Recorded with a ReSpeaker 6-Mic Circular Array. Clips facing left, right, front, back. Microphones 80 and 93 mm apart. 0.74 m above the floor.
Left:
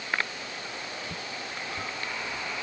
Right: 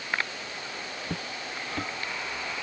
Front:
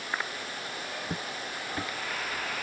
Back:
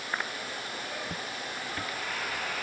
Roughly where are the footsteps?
Ahead right.